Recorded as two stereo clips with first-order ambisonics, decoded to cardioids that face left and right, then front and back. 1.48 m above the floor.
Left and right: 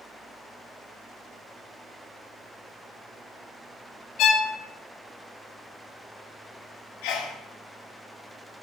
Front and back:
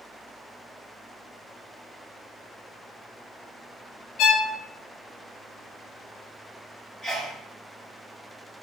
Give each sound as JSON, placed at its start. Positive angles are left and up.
{"t": 4.2, "sound": "a violin", "azimuth_deg": 45, "distance_m": 1.0}
{"t": 7.0, "sound": "a sneeze", "azimuth_deg": 85, "distance_m": 3.0}